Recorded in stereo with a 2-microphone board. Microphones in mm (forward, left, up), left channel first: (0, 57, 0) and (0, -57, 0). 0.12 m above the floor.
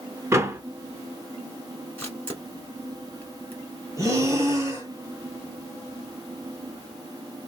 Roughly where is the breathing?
Right.